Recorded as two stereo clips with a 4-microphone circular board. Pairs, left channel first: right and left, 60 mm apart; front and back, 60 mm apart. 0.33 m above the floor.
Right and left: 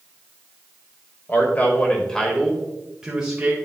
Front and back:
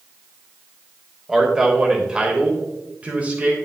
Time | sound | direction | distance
1.3 | a man speaking | 105° right | 1.5 m